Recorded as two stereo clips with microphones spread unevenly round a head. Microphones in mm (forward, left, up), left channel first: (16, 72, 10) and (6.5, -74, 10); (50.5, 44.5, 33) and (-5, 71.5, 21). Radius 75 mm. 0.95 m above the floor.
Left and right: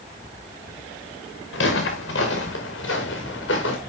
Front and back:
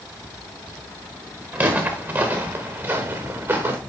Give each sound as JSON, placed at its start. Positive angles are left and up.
{"t": 1.5, "sound": "footsteps", "azimuth_deg": 90, "distance_m": 5.0}